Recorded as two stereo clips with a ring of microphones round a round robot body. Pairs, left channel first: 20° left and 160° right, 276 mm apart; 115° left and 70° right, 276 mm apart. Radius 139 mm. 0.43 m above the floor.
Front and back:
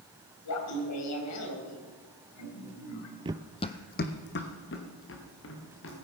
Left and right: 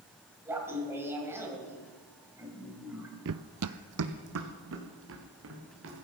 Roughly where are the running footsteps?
Right.